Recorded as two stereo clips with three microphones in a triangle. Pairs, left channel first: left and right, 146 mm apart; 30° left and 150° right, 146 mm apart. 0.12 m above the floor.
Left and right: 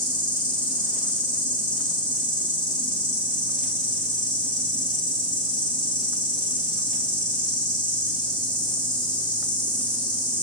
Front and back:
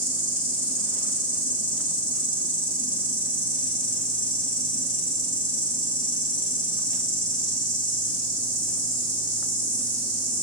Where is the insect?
35° left, 1.5 m.